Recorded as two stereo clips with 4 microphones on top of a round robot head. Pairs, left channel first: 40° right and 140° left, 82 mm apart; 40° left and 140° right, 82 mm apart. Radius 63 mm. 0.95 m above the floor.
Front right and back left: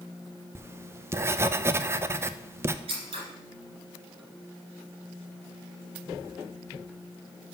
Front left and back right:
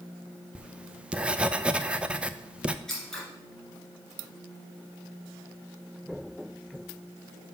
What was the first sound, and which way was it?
Writing, 155° left.